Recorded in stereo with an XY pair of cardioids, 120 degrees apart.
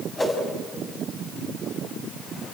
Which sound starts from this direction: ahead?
A whoosh, at 0.2 s.